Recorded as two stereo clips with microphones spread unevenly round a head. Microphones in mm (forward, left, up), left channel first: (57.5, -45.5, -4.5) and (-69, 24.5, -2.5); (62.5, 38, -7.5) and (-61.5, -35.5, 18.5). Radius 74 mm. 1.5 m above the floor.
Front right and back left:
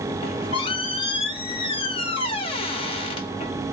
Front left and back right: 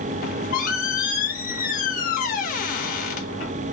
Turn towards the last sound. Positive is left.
turn(degrees=10)